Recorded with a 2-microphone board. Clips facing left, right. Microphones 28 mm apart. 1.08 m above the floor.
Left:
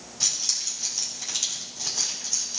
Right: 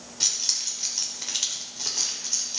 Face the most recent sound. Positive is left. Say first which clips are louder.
# right 1 dB
turn(degrees=-20)  # may be behind; listen again after turning